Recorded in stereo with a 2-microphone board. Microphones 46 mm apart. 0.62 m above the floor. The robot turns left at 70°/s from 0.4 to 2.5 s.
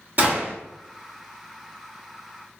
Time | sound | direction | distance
0.2 | a gunshot | 40° right (ahead or behind) | 1.8 m